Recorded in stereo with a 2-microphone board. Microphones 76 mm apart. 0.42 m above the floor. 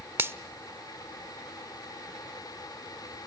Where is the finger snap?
35° right (ahead or behind), 0.7 m.